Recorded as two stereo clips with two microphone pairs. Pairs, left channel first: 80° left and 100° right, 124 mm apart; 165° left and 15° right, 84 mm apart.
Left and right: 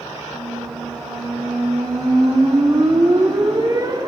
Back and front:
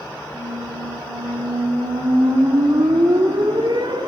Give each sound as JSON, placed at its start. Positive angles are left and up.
{"t": 0.3, "sound": "a squeak", "azimuth_deg": -40, "distance_m": 1.4}